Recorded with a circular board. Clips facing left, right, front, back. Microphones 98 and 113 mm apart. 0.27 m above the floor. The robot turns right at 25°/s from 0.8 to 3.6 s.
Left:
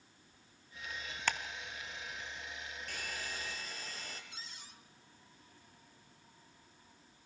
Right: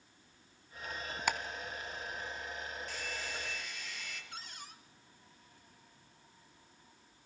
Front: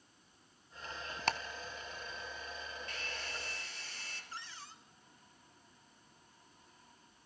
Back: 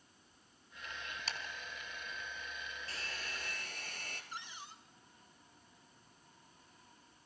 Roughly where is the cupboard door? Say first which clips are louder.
Right 4 dB, front 1 dB; right.